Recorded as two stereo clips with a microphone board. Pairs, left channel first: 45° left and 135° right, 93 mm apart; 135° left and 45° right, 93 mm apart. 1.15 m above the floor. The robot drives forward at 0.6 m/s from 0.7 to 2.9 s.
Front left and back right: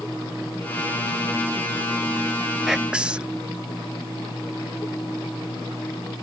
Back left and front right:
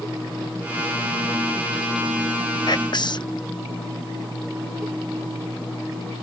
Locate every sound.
2.7 s whispering: 140° left; by 3.4 s 150° left